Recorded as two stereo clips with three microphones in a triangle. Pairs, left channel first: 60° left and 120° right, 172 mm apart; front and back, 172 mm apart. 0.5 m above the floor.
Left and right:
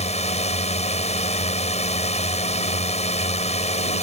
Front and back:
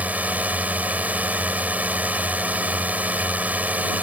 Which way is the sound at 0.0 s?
100° left.